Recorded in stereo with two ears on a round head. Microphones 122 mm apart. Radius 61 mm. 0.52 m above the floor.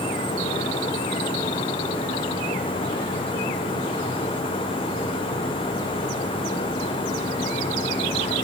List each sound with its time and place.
Only background noise.